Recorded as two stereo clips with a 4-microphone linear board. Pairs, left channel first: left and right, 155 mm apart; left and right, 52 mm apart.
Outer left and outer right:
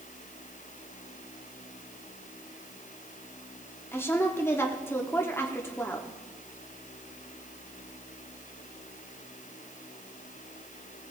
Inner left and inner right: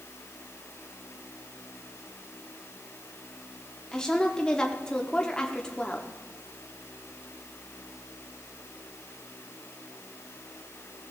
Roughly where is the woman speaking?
Centre.